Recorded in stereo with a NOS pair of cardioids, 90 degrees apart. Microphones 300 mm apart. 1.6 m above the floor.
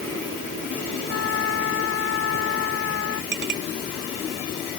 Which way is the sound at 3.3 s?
35° right.